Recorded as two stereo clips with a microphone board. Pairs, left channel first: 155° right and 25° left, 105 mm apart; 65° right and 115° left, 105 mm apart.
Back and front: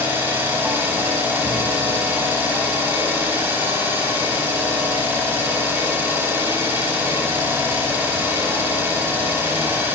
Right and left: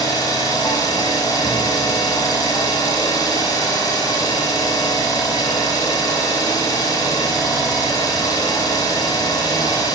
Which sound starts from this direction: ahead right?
An engine running, at 0.0 s.